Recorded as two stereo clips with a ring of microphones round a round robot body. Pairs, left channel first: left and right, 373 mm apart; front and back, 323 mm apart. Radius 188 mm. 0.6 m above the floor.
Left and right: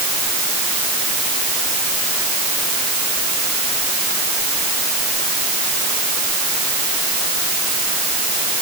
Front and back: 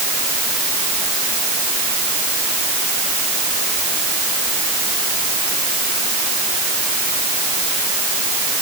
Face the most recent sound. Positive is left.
No sound to turn to.